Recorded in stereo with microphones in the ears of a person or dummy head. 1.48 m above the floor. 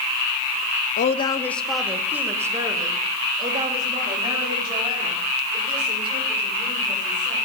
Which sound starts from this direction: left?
A woman speaking, at 1.0 s.